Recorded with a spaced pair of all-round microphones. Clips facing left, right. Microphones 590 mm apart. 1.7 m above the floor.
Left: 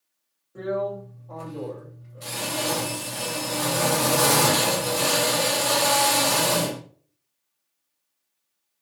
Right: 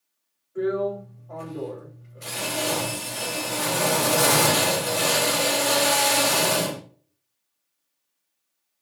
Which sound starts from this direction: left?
A drill, at 0.6 s.